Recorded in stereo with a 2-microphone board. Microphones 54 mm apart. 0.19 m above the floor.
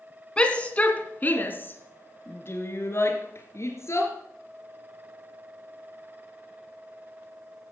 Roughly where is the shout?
Centre.